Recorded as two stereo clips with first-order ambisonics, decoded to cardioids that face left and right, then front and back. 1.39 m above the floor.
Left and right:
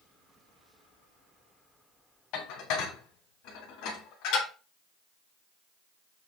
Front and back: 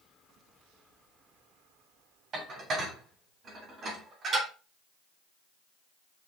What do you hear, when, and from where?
2.3 s dishes clattering: 120° left, 2.5 m